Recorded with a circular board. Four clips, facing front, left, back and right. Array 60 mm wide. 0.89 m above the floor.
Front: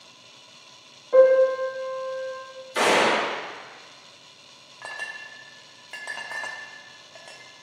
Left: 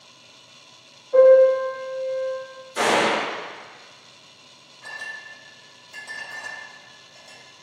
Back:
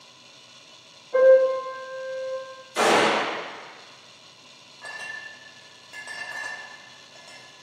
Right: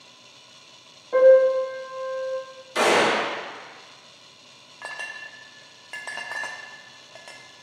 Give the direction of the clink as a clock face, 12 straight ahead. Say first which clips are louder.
Even, front 1 dB; 2 o'clock.